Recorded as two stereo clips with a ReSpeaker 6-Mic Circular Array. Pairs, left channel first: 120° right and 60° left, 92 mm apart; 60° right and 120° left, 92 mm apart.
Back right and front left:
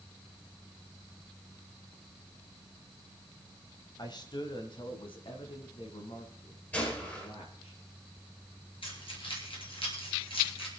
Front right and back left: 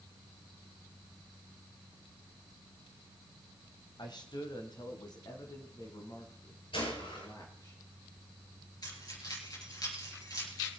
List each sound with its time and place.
4.0 s a man speaking: 85° right, 1.6 m; by 7.7 s 110° right, 5 m
6.7 s a gunshot: 45° right, 9 m
8.8 s keys jangling: 105° right, 6 m